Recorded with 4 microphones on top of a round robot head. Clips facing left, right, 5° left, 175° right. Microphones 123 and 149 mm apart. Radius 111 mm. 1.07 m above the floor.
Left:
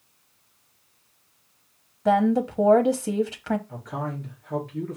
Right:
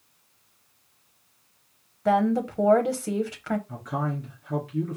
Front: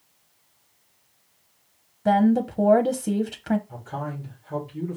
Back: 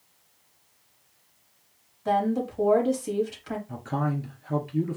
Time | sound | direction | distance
2.0 | a woman speaking | 10° left | 0.9 m
3.7 | a man speaking | 145° right | 2.5 m